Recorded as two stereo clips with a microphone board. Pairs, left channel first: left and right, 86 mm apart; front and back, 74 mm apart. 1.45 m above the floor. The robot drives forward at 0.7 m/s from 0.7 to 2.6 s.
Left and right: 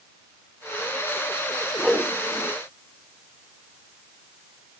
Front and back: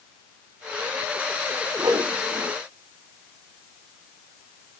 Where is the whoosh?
Straight behind, 1.1 m.